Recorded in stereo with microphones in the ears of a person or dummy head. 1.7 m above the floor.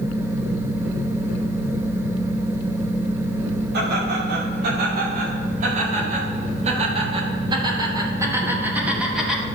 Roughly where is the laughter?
Right.